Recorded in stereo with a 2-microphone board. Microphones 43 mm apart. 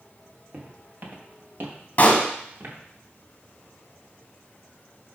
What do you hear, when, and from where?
0.5 s footsteps: 40° right (ahead or behind), 2.5 m; by 2.8 s 55° right (ahead or behind), 3.5 m
2.0 s a pop: 35° left (ahead or behind), 1.6 m